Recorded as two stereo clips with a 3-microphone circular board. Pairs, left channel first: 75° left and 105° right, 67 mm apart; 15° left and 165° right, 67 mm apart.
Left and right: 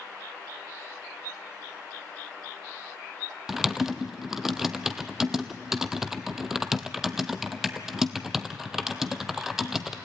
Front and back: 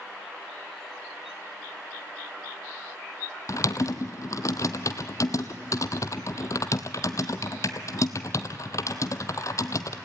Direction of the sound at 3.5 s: 20° right.